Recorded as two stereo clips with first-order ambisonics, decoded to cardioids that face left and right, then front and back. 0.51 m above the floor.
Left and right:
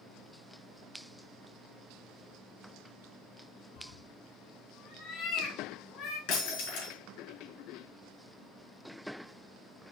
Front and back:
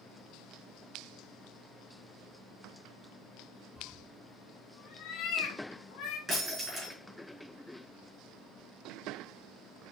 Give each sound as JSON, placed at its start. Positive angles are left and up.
{"t": 3.8, "sound": "a cat meowing", "azimuth_deg": 75, "distance_m": 1.2}
{"t": 6.3, "sound": "breaking glass", "azimuth_deg": 100, "distance_m": 4.0}